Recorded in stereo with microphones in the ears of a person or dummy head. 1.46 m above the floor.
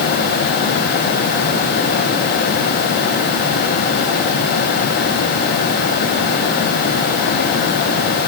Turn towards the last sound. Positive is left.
No sound to turn to.